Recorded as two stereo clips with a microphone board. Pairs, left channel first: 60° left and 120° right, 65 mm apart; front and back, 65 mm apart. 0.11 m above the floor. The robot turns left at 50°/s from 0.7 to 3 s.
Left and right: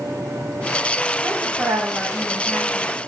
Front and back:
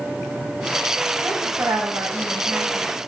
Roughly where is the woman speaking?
Behind right.